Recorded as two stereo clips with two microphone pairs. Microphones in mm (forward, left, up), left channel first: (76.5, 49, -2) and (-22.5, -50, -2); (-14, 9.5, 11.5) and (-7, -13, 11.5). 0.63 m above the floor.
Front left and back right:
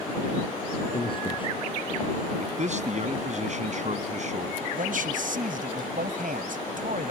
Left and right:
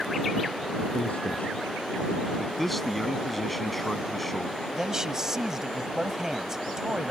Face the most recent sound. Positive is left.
turn(degrees=-140)